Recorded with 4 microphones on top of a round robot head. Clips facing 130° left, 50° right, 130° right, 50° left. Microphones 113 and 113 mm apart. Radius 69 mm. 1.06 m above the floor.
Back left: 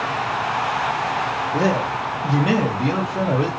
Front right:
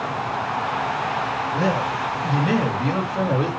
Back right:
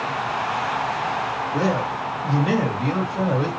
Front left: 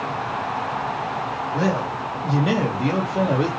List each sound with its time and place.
1.5 s a man speaking: 145° left, 0.8 m; by 3.5 s 70° left, 1.1 m